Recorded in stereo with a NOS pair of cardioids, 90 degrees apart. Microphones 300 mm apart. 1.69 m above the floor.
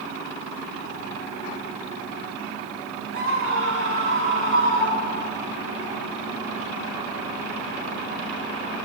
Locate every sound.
3.1 s a scream: 50° right, 9.5 m; by 5.4 s 40° right, 9.5 m